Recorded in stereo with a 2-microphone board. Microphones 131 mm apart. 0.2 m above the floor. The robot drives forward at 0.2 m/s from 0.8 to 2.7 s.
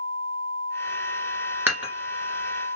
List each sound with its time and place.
1.7 s dishes clattering: 15° right (ahead or behind), 1.7 m